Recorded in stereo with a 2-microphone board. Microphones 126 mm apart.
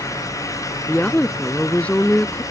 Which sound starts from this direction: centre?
A woman speaking, at 0.9 s.